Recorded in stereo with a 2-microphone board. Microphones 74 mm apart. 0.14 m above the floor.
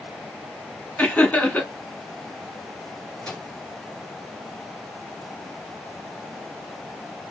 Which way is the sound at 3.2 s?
10° left (ahead or behind).